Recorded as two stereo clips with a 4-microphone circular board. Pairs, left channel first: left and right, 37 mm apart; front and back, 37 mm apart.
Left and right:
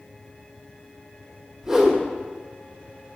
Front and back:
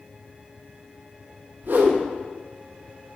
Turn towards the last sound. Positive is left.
turn(degrees=-155)